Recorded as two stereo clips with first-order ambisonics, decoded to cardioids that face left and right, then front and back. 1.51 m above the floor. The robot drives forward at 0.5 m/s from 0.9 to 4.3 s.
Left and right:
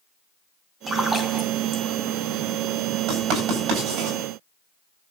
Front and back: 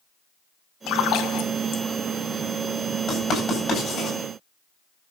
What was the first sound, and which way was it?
A splash, 15° right.